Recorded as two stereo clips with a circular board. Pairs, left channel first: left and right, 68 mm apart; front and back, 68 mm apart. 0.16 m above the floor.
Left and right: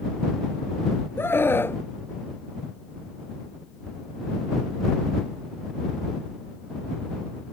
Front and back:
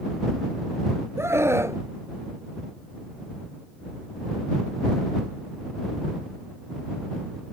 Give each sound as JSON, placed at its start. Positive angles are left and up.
{"t": 1.2, "sound": "a scream", "azimuth_deg": 140}